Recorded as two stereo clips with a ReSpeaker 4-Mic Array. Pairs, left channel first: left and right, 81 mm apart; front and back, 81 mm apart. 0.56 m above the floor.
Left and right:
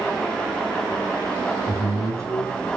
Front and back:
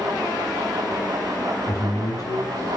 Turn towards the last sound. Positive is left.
turn(degrees=-45)